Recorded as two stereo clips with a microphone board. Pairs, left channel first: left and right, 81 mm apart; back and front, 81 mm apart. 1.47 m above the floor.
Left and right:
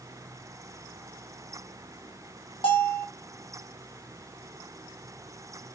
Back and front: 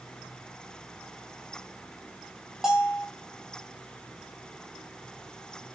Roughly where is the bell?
Left.